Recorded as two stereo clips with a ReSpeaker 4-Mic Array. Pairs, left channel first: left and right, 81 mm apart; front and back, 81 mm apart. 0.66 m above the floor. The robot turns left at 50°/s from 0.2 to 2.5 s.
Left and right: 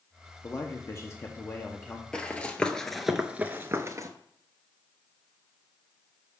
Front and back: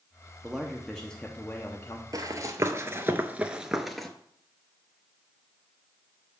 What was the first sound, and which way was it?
A man speaking, 105° left.